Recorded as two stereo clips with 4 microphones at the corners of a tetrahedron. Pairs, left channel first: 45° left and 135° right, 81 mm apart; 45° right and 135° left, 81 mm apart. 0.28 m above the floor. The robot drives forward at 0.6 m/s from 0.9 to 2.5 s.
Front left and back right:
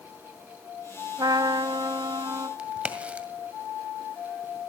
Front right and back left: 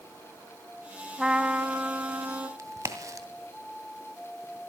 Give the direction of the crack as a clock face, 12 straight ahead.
7 o'clock.